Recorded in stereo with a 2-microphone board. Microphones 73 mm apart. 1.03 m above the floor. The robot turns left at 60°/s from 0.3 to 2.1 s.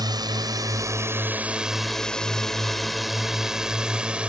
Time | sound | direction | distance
0.0 | a drone | 70° right (ahead or behind) | ?